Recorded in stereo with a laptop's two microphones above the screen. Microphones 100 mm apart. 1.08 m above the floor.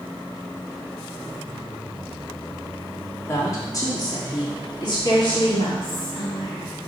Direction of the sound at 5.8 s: 55° left (ahead or behind).